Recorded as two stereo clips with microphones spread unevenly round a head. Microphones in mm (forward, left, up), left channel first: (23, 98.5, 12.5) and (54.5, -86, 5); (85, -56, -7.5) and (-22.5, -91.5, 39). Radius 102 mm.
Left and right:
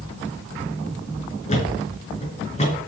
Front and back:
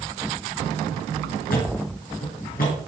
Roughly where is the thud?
Ahead left.